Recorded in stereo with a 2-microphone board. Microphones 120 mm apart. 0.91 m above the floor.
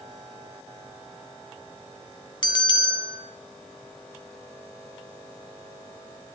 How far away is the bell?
About 1.9 m.